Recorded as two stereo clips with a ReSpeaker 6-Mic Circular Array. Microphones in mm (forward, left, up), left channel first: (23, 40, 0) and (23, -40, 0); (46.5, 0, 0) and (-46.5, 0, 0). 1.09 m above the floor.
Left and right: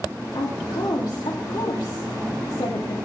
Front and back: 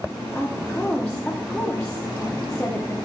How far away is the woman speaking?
About 2 m.